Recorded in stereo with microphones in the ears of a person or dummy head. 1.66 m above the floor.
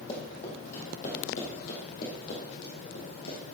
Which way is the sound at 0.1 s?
35° left (ahead or behind).